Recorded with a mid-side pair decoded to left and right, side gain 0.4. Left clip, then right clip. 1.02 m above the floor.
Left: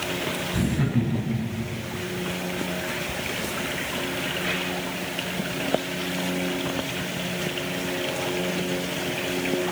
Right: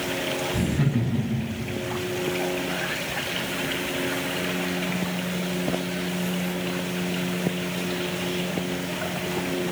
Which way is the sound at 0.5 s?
5° right.